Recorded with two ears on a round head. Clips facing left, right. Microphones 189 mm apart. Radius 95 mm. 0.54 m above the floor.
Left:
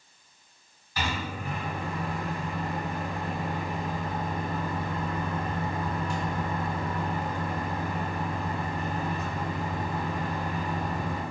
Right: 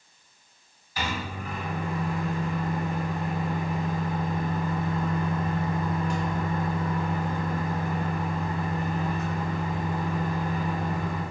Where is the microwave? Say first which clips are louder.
Even; 45° left (ahead or behind), 1.5 m.